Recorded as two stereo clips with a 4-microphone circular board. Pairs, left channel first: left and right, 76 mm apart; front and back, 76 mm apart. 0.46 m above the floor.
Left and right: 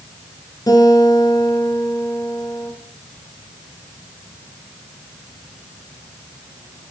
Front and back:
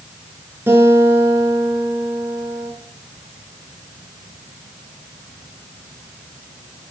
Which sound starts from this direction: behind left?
A guitar, at 0.7 s.